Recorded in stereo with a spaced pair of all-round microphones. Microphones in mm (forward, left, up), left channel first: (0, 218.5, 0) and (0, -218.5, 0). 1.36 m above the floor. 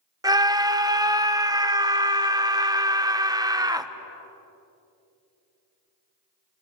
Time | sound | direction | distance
0.2 | a scream | 10° right (ahead or behind) | 1.0 m